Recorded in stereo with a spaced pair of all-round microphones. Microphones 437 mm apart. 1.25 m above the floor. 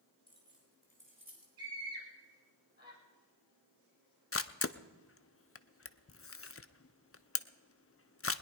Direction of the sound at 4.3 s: 30° left (ahead or behind).